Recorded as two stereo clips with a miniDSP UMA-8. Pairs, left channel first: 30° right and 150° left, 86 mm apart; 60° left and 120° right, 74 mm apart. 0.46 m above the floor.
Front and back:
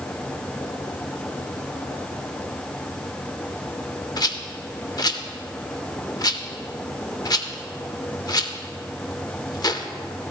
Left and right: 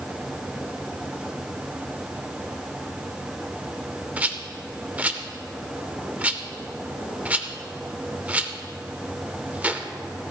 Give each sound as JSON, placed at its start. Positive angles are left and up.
{"t": 4.2, "sound": "a rattle", "azimuth_deg": -50, "distance_m": 0.6}